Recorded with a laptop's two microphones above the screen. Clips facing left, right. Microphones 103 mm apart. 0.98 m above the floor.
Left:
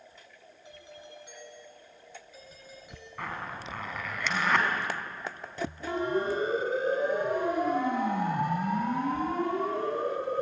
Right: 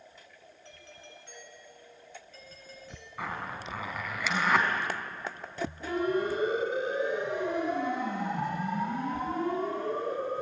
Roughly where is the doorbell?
Centre.